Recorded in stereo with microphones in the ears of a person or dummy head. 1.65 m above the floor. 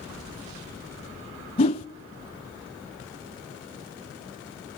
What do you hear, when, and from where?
1.6 s a whoosh: 35° left (ahead or behind), 0.6 m